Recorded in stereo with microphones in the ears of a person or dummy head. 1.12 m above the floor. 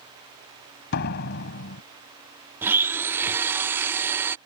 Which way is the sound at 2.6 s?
10° right (ahead or behind).